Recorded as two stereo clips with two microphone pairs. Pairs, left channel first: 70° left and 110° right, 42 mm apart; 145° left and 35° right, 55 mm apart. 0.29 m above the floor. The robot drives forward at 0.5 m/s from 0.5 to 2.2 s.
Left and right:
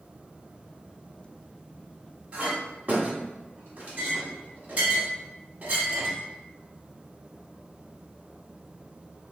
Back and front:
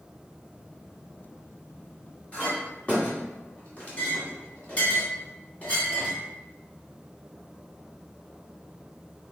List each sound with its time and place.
2.3 s a clink: 155° right, 1.4 m